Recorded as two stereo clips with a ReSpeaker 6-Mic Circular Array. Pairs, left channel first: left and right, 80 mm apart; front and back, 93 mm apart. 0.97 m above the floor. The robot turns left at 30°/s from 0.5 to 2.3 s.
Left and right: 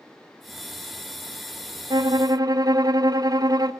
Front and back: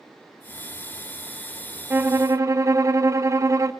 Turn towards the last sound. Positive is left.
turn(degrees=-125)